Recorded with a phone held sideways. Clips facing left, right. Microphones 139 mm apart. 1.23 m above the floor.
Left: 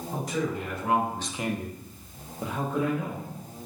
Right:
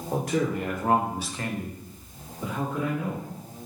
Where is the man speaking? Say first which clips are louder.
Right 4 dB; 65° right (ahead or behind), 1.4 m; by 3.2 s 75° left (ahead or behind), 2 m.